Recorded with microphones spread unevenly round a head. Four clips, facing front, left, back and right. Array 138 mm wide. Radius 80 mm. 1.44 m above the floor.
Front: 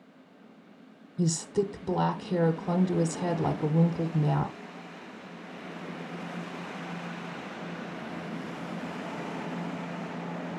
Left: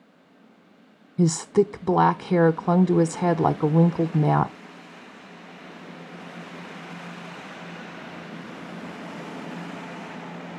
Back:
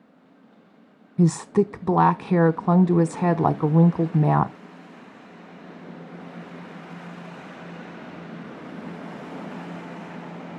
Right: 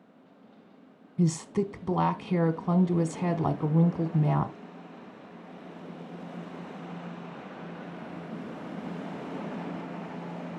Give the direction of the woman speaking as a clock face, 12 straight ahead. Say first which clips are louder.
Left 7 dB, back 8 dB; 7 o'clock.